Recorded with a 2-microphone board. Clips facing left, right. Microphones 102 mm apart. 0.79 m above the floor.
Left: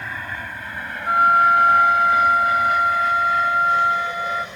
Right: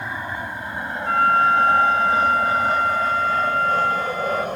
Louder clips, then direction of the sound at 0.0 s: Right 2 dB; 20° right (ahead or behind).